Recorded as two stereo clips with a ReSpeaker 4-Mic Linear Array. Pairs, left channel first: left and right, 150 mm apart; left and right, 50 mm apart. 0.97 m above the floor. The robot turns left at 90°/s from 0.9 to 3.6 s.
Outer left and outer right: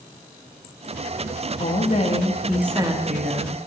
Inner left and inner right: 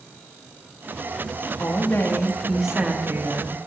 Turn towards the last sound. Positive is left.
turn(degrees=-100)